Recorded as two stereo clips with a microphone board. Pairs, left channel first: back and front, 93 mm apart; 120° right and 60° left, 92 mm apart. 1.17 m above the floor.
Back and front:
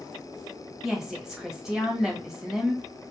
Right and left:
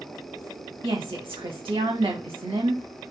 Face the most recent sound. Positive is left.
turn(degrees=85)